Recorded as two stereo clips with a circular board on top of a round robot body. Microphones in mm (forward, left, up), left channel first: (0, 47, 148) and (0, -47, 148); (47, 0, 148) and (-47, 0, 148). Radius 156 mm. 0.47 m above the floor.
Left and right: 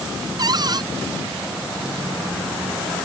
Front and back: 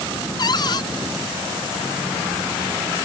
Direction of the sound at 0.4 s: 45° right.